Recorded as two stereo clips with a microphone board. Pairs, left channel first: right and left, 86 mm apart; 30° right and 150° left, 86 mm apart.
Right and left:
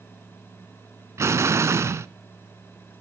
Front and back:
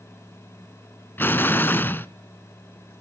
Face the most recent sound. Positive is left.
turn(degrees=35)